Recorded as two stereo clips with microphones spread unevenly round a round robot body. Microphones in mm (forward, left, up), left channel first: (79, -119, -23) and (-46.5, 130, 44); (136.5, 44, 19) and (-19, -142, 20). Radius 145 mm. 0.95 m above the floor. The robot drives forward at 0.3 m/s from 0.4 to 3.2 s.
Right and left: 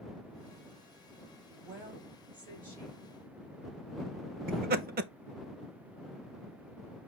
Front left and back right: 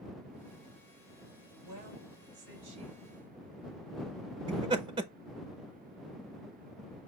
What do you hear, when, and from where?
1.5 s a woman speaking: 155° right, 1.9 m; by 3.0 s 160° right, 2.5 m
4.5 s laughter: 175° left, 0.5 m